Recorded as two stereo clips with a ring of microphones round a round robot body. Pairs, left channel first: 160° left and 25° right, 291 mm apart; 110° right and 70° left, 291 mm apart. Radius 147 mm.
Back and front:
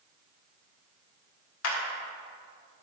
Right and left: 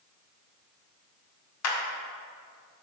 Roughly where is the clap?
Behind right.